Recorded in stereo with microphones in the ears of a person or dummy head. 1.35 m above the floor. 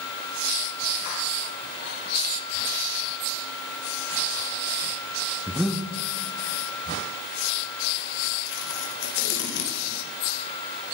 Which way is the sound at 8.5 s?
55° left (ahead or behind).